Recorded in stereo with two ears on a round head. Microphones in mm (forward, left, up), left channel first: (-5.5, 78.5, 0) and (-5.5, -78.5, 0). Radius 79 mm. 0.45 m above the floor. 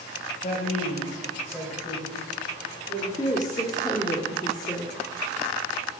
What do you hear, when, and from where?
0.4 s a man speaking: 45° left (ahead or behind), 1.9 m; by 3.1 s 30° right (ahead or behind), 2.5 m
3.2 s a woman speaking: 20° left (ahead or behind), 0.8 m